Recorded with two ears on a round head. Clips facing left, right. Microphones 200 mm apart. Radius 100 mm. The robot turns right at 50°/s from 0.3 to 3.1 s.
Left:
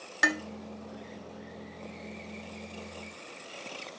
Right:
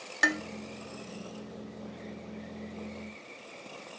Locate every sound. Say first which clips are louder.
0.2 s dishes clattering: even; centre (ahead or behind), 0.5 m; by 0.4 s 5° right (ahead or behind), 0.5 m